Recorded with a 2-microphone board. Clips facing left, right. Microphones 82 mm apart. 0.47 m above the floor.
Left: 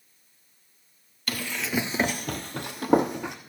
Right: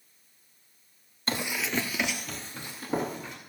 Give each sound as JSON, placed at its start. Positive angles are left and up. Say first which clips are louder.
{"t": 1.3, "sound": "running footsteps", "louder": "even", "side_deg": -30, "distance_m": 0.7}